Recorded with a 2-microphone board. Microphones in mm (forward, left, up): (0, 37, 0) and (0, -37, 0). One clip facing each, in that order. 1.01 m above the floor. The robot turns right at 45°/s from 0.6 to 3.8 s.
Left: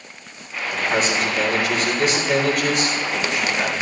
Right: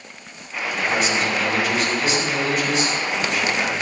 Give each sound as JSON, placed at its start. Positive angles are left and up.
{"t": 0.7, "sound": "a man speaking", "azimuth_deg": 35, "distance_m": 3.5}